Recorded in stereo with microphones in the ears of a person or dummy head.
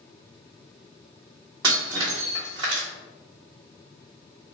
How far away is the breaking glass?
About 1.4 m.